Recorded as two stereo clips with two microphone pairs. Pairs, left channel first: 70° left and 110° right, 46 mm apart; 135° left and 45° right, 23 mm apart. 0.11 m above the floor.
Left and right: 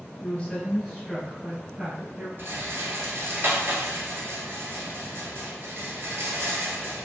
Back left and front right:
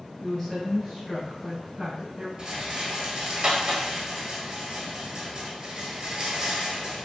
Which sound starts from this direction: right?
A rattle, at 2.4 s.